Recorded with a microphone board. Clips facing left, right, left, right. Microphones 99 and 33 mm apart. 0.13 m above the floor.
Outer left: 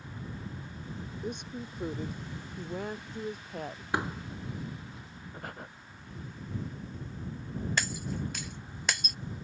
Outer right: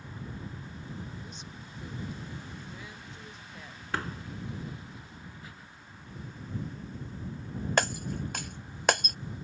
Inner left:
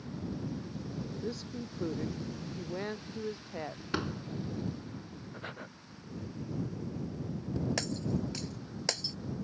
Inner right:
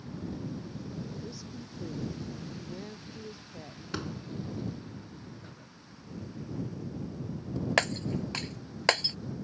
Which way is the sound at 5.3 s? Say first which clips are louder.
Outer left 6 dB, inner left 6 dB; 55° left (ahead or behind).